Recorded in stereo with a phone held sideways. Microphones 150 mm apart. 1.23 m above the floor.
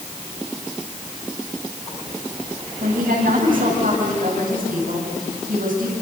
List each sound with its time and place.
2.8 s a woman speaking: 70° right (ahead or behind), 9 m